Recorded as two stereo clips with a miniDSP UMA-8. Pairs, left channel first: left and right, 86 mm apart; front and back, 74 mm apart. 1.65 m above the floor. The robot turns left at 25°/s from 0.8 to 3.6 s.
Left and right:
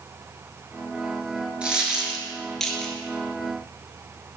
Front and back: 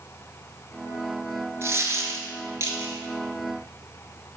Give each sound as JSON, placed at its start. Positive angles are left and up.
{"t": 1.6, "sound": "a dropped coin", "azimuth_deg": -160, "distance_m": 1.9}